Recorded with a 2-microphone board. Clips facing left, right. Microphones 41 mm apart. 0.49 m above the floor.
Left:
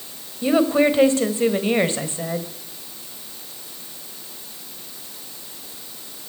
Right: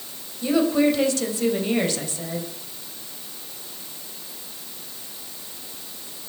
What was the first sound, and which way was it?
A woman speaking, 30° left (ahead or behind).